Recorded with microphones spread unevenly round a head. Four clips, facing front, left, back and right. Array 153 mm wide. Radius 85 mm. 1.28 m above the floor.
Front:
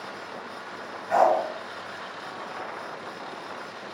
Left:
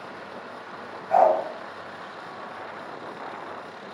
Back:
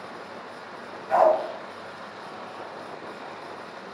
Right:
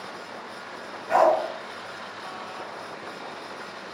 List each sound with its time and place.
1.1 s a dog barking: 85° right, 4 m